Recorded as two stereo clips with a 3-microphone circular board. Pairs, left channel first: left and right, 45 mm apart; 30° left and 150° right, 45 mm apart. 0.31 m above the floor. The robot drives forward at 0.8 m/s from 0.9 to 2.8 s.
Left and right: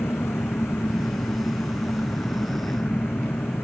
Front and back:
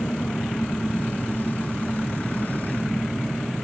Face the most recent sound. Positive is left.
turn(degrees=115)